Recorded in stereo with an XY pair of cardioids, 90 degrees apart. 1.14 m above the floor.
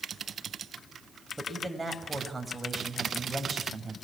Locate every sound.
1.4 s a man speaking: 10° right, 6 m